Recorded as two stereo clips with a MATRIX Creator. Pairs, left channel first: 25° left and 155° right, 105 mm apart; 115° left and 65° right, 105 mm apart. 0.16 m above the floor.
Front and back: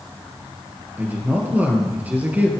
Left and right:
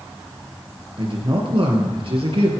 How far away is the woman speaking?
About 3.5 m.